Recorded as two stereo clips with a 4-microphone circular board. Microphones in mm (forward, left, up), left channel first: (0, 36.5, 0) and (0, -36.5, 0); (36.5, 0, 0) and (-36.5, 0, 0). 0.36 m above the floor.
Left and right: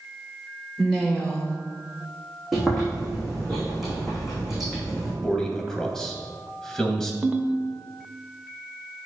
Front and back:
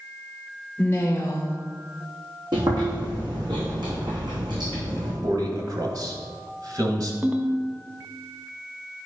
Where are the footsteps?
No footsteps in this recording.